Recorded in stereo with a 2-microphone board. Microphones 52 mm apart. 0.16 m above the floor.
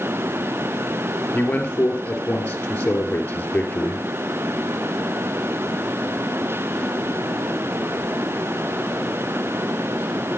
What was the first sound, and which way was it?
A man speaking, 30° left (ahead or behind).